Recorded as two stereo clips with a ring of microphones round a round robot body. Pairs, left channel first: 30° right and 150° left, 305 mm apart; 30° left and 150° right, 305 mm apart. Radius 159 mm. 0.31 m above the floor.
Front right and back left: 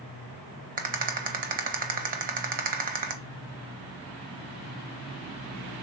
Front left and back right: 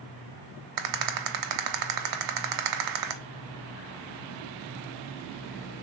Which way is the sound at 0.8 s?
145° right.